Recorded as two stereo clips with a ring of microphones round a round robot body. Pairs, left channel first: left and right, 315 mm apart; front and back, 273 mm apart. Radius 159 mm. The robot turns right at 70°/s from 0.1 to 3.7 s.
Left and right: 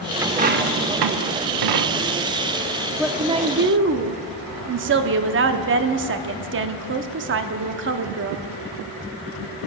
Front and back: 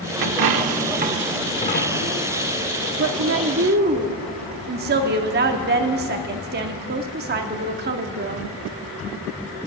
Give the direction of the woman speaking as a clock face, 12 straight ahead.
6 o'clock.